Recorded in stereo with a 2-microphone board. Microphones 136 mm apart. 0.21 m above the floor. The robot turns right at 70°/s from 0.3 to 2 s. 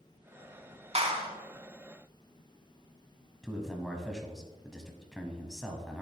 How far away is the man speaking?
About 1.1 m.